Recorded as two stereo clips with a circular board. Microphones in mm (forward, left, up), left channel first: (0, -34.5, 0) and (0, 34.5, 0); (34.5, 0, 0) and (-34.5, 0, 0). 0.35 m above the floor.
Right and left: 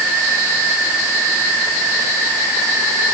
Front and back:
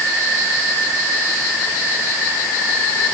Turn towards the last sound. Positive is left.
No sound to turn to.